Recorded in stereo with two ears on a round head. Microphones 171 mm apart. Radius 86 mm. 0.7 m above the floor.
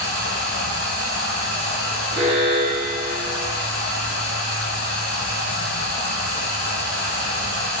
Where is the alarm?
15° right (ahead or behind), 0.9 m.